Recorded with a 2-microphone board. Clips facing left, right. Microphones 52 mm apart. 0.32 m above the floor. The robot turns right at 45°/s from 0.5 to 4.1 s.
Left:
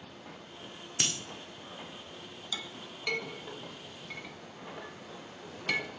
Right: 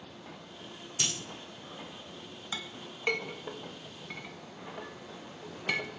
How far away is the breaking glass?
About 1.0 m.